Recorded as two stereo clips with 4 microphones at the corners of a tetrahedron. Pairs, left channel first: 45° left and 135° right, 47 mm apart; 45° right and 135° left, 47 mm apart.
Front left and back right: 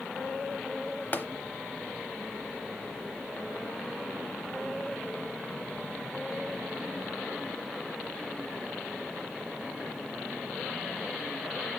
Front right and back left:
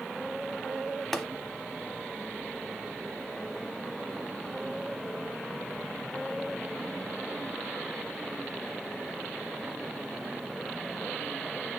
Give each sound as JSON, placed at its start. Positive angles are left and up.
{"t": 1.1, "sound": "tapping", "azimuth_deg": 40, "distance_m": 0.9}